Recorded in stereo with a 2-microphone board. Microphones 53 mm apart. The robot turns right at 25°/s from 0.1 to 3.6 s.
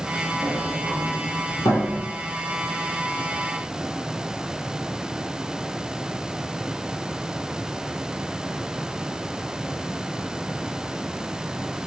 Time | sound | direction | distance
0.4 | a sliding door | 40° left (ahead or behind) | 9 m